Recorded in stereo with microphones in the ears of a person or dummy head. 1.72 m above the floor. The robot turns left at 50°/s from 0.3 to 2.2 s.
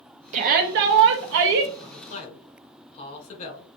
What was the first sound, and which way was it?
A shout, 40° right.